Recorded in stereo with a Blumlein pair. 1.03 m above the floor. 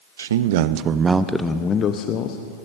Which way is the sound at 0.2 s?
65° right.